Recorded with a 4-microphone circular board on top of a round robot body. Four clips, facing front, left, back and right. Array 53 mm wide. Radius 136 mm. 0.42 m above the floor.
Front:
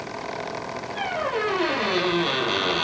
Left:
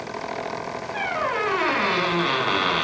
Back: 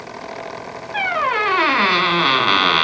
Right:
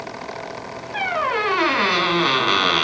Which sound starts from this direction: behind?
A squeak, at 0.9 s.